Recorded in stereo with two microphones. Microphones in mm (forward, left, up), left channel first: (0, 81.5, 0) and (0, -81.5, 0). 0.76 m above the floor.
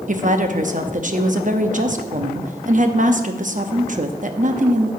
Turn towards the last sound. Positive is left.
turn(degrees=-50)  # may be behind; listen again after turning